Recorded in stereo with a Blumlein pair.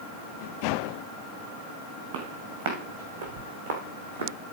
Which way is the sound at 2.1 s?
55° right.